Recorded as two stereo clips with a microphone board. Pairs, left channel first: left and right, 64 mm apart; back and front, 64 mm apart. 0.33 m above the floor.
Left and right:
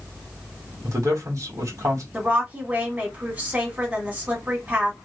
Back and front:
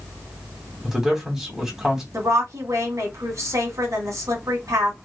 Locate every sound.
0.8 s a man speaking: 80° right, 2.5 m
2.1 s a woman speaking: 30° right, 2.5 m